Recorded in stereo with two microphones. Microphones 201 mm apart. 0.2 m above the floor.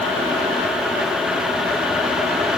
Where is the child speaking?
I don't hear a child speaking.